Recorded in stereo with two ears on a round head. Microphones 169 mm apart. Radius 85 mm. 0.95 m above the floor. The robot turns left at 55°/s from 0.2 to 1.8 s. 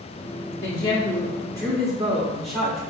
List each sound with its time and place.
0.6 s a woman speaking: 30° left, 1.4 m; by 2.8 s 35° right, 1.4 m